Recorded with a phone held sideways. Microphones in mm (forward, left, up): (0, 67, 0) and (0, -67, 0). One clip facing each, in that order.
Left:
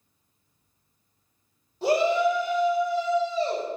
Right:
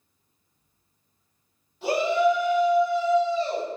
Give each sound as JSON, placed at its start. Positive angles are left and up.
{"t": 1.8, "sound": "a shout", "side_deg": 35, "distance_m": 1.3}